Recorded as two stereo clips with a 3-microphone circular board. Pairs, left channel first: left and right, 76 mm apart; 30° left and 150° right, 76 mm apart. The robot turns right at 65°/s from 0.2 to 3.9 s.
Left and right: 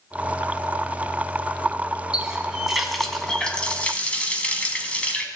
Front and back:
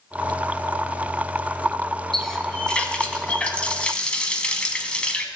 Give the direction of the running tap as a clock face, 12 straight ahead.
2 o'clock.